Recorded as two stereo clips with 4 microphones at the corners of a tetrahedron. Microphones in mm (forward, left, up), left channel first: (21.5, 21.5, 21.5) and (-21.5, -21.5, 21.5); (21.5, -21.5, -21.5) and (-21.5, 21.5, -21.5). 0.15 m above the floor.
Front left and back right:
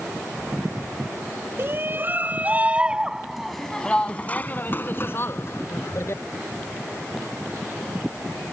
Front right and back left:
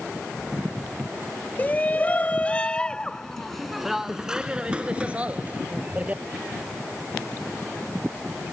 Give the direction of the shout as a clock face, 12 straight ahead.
3 o'clock.